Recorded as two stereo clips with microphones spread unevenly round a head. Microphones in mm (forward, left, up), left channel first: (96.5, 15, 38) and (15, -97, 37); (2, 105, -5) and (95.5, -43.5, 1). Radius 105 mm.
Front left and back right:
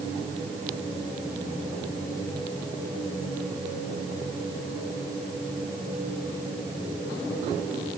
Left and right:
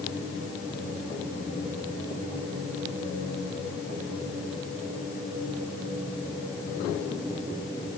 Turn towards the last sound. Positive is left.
No sound to turn to.